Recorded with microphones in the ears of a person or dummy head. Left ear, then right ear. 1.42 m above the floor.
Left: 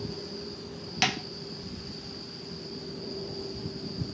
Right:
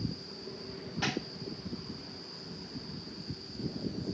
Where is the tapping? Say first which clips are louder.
Left 7 dB; 60° left (ahead or behind), 1.5 m.